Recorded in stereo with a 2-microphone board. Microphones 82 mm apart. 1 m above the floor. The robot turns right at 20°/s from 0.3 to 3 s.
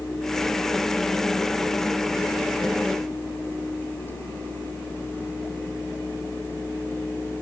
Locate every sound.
Only background noise.